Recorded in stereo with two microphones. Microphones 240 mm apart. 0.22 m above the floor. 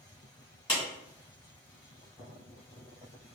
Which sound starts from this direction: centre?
A clap, at 0.7 s.